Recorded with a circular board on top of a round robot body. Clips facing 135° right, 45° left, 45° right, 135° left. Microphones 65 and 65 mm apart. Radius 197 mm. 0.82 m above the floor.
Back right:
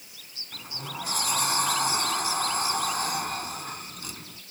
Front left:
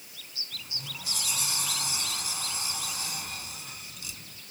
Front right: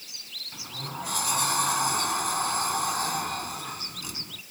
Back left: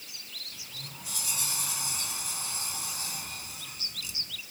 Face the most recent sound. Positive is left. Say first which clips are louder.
# back right 7 dB, front right 9 dB
turn(degrees=-85)